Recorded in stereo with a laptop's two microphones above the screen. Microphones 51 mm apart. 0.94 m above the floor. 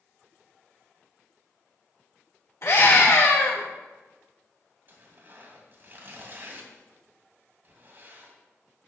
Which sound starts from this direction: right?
Tearing paper, at 4.9 s.